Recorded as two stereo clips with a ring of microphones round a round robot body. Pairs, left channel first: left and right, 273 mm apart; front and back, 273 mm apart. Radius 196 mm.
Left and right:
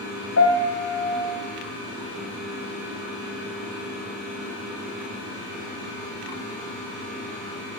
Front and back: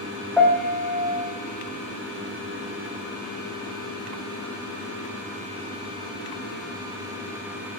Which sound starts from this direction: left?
A piano, at 0.4 s.